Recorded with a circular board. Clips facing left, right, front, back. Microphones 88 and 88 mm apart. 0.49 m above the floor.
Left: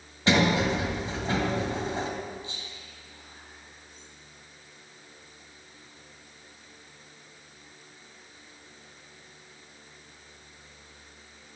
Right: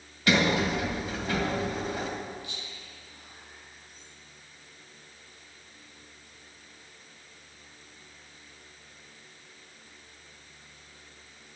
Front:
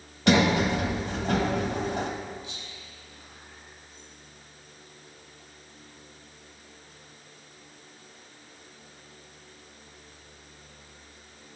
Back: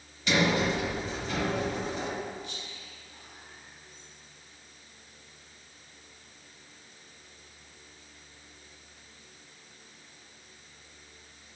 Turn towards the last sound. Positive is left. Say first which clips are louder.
# left 1 dB, even
turn(degrees=150)